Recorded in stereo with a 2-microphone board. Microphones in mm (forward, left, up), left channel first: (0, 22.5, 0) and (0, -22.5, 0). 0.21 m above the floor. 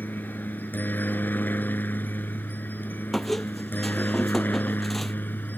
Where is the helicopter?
45° left (ahead or behind).